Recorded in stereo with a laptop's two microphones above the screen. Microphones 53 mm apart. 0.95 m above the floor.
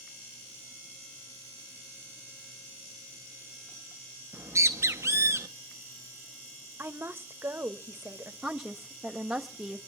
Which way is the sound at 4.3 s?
60° right (ahead or behind).